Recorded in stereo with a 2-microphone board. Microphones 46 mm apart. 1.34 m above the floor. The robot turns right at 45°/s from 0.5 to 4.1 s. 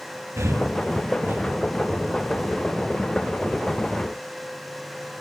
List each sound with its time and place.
0.4 s breathing: 90° right, 2 m; by 1.4 s 45° right (ahead or behind), 2 m